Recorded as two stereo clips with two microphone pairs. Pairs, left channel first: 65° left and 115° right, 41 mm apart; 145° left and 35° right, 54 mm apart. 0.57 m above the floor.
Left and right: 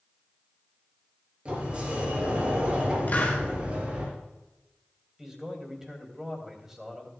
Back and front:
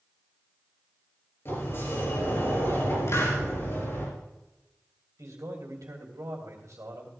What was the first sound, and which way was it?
A sliding door, 175° right.